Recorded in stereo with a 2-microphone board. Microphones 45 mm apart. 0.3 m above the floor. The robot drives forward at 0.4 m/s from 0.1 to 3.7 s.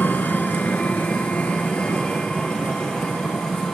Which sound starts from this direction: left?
An engine running, at 0.0 s.